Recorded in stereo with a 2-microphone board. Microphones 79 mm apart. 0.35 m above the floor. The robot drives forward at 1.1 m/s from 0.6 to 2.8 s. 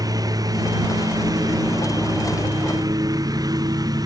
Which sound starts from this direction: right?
A lawn mower, at 0.0 s.